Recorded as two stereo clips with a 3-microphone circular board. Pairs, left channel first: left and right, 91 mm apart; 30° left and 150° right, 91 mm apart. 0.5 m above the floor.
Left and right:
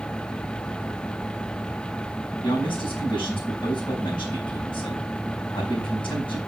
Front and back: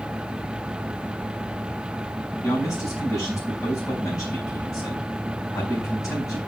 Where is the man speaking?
80° left, 4.5 m.